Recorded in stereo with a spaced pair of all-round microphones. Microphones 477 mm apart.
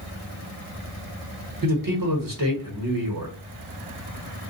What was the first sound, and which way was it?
A man speaking, 45° right (ahead or behind).